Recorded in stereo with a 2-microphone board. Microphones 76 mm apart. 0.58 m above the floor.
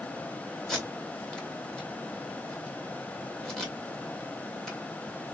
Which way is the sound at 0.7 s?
5° left (ahead or behind).